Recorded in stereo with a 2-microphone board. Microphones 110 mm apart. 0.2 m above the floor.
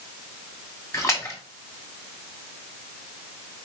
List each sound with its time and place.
0.9 s a splash: 25° left (ahead or behind), 1.3 m